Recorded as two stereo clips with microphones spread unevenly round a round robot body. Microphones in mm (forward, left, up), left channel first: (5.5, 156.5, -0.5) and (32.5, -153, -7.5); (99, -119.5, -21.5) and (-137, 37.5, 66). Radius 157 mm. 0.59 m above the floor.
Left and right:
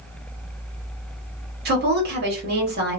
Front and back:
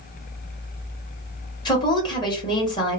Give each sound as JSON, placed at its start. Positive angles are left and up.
{"t": 1.6, "sound": "a woman speaking", "azimuth_deg": -60, "distance_m": 1.1}